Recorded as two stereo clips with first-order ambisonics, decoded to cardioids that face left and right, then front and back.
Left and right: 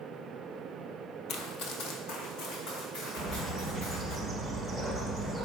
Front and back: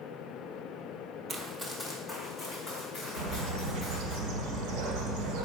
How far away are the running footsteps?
About 0.9 m.